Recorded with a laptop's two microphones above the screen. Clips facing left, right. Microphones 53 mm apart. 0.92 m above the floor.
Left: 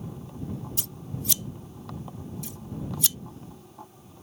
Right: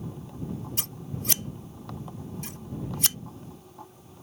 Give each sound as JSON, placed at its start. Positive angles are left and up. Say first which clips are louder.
{"t": 0.8, "sound": "scissors", "louder": "even", "side_deg": -50}